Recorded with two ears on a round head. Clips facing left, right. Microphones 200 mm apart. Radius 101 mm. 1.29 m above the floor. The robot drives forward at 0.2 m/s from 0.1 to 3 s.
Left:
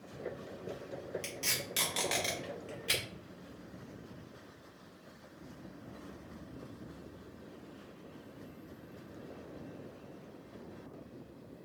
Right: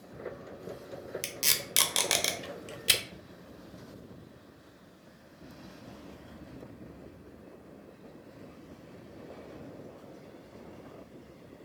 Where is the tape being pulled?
50° right (ahead or behind), 0.5 m; by 3.0 s 55° right (ahead or behind), 0.5 m.